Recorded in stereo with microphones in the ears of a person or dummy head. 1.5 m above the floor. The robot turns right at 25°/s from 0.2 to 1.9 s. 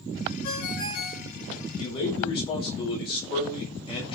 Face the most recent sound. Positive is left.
turn(degrees=30)  # may be behind; listen again after turning